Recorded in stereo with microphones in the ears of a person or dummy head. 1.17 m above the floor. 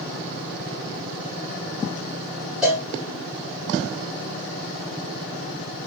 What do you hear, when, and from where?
2.6 s a cowbell: 5° right (ahead or behind), 2.5 m